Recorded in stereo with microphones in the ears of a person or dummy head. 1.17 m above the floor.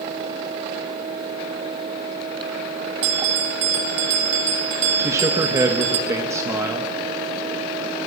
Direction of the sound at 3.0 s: 40° right (ahead or behind).